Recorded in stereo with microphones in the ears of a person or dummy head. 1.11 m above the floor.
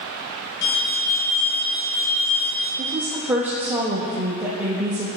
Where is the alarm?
60° left (ahead or behind), 2.5 m.